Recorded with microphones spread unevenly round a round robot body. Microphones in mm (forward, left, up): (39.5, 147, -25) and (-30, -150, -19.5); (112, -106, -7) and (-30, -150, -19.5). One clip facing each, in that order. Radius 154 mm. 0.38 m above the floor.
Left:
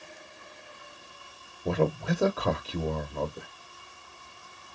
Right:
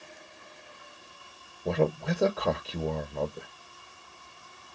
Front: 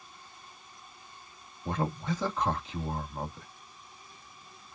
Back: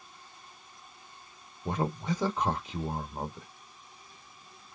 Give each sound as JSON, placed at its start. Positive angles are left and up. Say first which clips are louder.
{"t": 1.6, "sound": "a man speaking", "louder": "even, back 1 dB", "azimuth_deg": 160, "distance_m": 0.8}